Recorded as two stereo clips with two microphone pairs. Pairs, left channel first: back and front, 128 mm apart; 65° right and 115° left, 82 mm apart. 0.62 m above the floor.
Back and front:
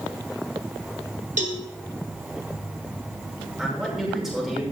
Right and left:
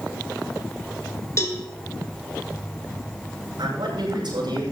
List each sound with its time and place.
1.4 s a cowbell: 15° right, 2 m
3.6 s a man speaking: 85° left, 8 m